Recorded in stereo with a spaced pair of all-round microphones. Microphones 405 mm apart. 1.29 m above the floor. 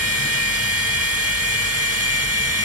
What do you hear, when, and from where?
0.0 s a machine running: 35° right (ahead or behind), 1.8 m